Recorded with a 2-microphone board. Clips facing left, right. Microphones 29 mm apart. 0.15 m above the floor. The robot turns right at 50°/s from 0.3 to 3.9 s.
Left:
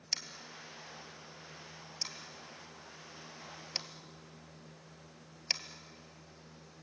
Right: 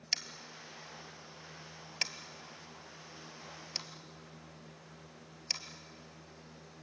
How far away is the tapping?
About 1.7 m.